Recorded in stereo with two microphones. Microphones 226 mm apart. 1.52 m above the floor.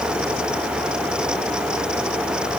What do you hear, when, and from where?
Only background noise.